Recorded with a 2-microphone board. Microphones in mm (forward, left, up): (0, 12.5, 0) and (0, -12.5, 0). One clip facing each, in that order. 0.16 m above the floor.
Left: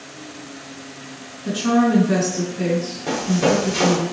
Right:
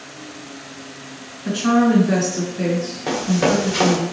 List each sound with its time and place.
1.4 s a woman speaking: 40° right (ahead or behind), 1.8 m
3.1 s running footsteps: 35° right (ahead or behind), 1.5 m